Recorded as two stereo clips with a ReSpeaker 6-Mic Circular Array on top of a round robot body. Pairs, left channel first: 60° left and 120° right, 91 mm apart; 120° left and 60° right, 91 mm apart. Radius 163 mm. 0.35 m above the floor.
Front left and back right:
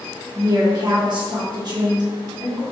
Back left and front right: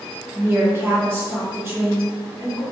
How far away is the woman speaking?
About 1.5 m.